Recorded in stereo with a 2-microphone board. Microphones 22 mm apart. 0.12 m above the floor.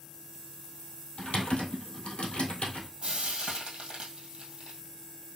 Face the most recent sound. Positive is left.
turn(degrees=-50)  # may be behind; listen again after turning